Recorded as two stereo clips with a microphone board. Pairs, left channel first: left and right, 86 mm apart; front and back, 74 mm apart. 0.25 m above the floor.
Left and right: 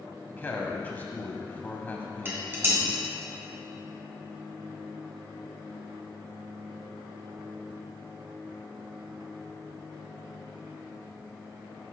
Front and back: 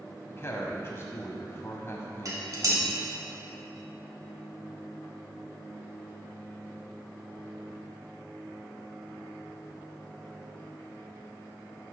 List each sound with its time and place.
0.3 s a woman speaking: 35° left, 1.3 m
2.2 s dishes clattering: 150° right, 1.8 m